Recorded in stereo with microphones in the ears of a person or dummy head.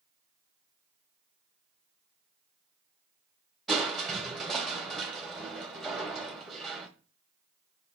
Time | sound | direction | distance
3.7 | crushing | centre (ahead or behind) | 2.5 m